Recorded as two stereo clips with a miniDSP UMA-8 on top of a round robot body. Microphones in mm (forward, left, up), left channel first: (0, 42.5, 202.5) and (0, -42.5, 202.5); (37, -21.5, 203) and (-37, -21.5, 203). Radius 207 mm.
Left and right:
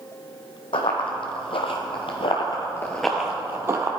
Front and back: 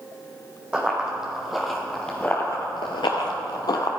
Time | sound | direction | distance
0.7 | running footsteps | 105° left | 1.6 m